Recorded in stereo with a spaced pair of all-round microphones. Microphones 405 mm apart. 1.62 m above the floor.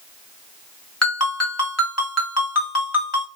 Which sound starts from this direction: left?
A ringtone, at 1.0 s.